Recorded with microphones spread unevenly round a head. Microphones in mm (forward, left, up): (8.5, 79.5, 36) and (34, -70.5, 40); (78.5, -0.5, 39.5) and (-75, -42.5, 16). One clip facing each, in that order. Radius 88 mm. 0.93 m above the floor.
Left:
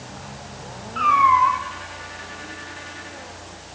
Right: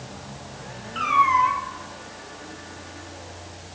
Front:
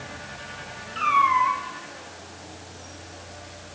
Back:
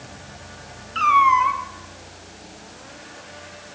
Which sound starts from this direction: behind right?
A cat meowing, at 0.9 s.